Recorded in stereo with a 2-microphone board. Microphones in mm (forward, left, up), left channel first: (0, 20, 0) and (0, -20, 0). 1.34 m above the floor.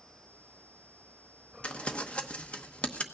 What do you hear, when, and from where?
1.6 s crumpling: 30° left (ahead or behind), 0.9 m